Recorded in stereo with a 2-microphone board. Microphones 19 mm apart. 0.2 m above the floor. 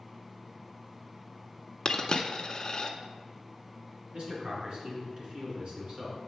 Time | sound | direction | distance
1.9 | a dropped coin | 35° left (ahead or behind) | 0.6 m
4.1 | a man speaking | 55° right (ahead or behind) | 2.5 m